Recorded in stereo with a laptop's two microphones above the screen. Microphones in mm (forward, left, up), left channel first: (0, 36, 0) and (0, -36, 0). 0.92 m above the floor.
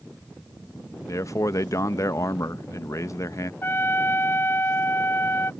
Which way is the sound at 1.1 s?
45° left (ahead or behind).